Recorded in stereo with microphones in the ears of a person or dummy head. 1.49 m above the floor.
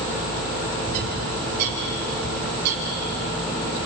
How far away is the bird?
About 2.5 m.